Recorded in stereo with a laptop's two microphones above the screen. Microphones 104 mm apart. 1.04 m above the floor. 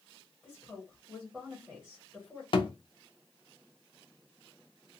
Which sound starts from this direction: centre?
A woman speaking, at 0.4 s.